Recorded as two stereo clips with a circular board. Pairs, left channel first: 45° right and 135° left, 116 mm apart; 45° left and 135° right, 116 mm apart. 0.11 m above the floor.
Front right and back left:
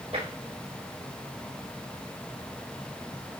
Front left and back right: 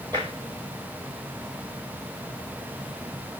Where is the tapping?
170° left, 6.5 m.